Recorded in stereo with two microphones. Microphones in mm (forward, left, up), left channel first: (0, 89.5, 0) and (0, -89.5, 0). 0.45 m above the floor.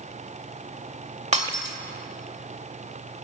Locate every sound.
1.3 s breaking glass: 40° right (ahead or behind), 1.1 m